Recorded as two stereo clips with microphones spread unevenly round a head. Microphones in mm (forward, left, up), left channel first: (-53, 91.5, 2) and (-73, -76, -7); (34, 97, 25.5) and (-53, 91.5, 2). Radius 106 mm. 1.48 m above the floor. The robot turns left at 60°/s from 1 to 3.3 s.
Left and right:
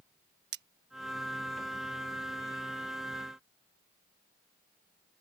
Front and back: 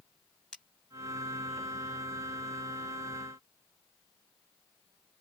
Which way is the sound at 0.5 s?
70° right.